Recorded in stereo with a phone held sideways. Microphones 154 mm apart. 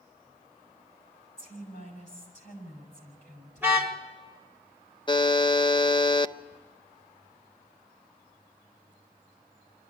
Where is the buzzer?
30° left (ahead or behind), 0.6 m.